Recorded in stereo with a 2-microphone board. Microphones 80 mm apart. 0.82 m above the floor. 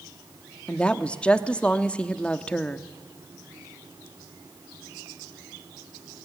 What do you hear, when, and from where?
0.7 s a woman speaking: 15° left (ahead or behind), 1.1 m